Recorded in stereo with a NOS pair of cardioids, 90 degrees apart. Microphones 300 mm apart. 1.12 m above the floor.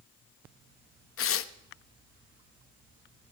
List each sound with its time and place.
1.2 s tearing paper: 50° left, 0.8 m